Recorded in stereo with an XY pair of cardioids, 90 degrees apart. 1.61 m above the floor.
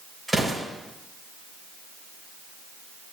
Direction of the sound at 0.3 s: 5° right.